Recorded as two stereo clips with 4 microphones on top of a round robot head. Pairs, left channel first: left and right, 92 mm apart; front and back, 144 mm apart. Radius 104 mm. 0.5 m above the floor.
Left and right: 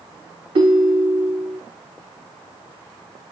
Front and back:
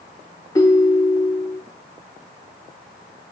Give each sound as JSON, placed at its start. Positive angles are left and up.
{"t": 0.6, "sound": "a ringtone", "azimuth_deg": -70, "distance_m": 0.7}